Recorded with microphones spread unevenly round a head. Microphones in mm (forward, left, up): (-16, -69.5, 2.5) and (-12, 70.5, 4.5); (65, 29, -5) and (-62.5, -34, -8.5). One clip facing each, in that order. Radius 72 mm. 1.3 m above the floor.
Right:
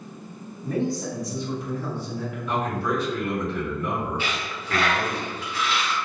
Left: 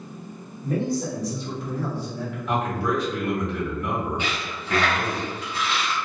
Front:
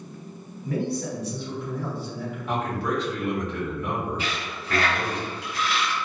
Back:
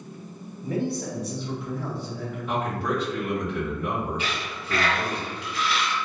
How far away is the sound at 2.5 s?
About 1.3 m.